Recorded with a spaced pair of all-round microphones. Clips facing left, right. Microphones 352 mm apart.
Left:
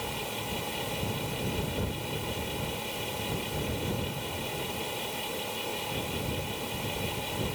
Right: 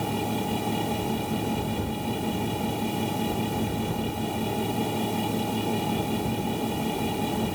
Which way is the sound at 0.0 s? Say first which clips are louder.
Right 10 dB; 60° right (ahead or behind).